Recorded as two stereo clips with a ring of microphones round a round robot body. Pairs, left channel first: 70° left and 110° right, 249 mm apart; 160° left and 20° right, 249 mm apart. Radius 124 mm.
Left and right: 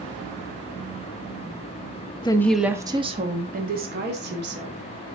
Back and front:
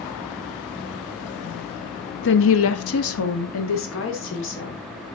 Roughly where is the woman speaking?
Behind left.